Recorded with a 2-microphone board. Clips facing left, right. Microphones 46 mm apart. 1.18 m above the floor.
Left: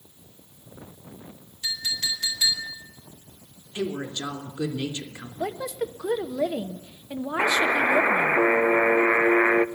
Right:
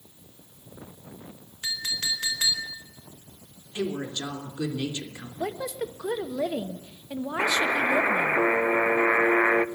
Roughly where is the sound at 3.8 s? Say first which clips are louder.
Even; centre.